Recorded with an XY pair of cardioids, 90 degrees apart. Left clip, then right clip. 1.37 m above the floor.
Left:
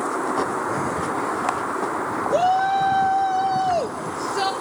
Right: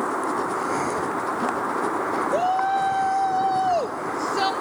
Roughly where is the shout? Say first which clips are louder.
Left 4 dB; ahead left.